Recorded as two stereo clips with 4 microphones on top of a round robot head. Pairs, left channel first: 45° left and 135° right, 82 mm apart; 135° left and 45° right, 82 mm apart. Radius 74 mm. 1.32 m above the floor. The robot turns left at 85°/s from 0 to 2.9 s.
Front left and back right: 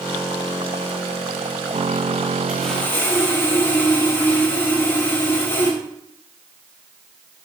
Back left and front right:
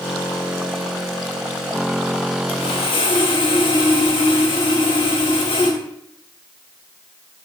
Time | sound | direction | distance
2.5 | sawing | 150° left | 3 m